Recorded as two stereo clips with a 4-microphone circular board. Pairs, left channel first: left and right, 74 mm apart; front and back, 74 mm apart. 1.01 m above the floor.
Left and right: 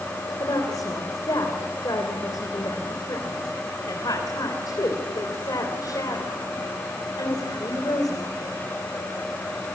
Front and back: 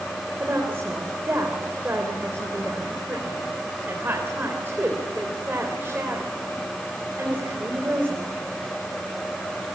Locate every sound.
0.4 s a woman speaking: 120° left, 3.5 m